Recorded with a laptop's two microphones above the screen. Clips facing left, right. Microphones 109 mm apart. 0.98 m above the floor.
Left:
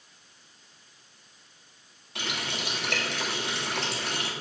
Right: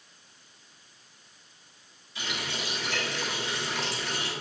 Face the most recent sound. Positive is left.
turn(degrees=70)  # may be behind; listen again after turning